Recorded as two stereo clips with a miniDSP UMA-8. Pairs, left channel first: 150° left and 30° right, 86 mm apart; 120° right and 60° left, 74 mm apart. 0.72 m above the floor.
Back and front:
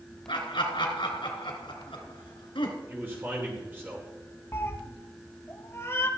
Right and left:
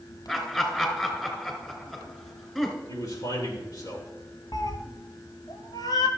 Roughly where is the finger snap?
I don't hear a finger snap.